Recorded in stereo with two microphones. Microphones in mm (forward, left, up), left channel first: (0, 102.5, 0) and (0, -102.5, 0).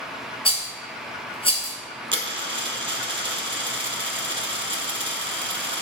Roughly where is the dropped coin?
Right.